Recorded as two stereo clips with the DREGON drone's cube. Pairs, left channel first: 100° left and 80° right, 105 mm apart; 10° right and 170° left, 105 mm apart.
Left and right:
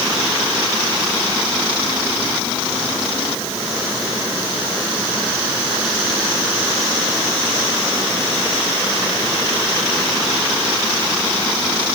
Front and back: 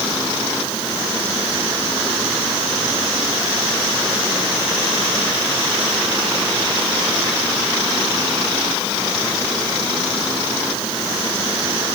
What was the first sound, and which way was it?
Only background noise.